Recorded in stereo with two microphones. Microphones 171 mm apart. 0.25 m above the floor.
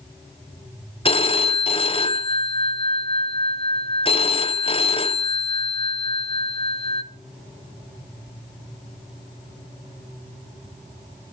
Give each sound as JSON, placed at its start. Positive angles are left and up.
{"t": 1.1, "sound": "a phone ringing", "side_deg": 35, "distance_m": 0.8}